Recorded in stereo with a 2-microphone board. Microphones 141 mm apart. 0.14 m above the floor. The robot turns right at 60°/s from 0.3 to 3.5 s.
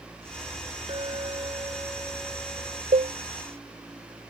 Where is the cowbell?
65° right (ahead or behind); by 3.1 s 55° right (ahead or behind).